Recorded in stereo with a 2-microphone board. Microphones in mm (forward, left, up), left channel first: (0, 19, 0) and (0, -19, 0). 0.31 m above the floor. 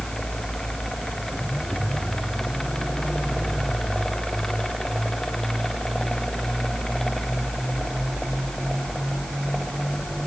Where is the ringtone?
I don't hear a ringtone.